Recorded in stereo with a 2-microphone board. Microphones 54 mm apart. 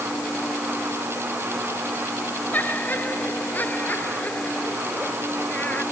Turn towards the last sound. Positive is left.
turn(degrees=30)  # may be behind; listen again after turning